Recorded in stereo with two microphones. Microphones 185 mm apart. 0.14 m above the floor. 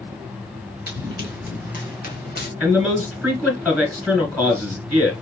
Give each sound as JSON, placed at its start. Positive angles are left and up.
{"t": 0.9, "sound": "running footsteps", "side_deg": 50, "distance_m": 3.0}
{"t": 2.6, "sound": "a man speaking", "side_deg": 5, "distance_m": 1.5}